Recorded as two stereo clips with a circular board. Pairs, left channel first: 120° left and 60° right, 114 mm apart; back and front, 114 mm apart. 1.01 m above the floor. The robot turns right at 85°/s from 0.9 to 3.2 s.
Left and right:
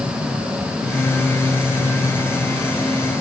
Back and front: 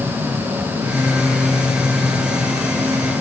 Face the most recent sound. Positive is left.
No sound to turn to.